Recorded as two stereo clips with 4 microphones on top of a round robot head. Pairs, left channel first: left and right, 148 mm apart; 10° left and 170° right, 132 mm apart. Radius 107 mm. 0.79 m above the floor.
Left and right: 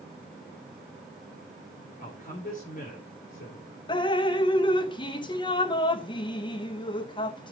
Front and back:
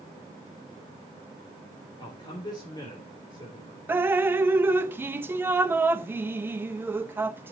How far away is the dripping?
About 0.7 m.